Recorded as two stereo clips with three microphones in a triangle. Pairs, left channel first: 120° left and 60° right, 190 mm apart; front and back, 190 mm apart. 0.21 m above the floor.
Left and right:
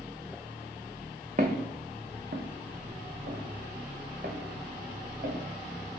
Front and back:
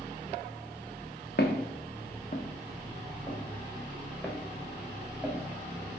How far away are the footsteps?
About 0.9 m.